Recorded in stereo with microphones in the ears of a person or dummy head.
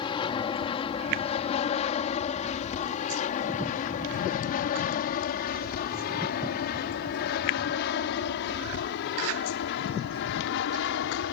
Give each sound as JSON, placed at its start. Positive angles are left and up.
{"t": 0.0, "sound": "an aircraft", "side_deg": 25}